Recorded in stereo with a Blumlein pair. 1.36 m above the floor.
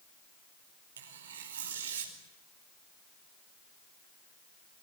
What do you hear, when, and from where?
1.0 s tearing paper: 65° right, 5 m